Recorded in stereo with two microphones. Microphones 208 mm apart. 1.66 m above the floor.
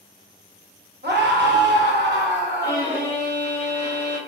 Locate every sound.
1.0 s a scream: 55° right (ahead or behind), 1.2 m
2.6 s a violin: 10° right (ahead or behind), 1.2 m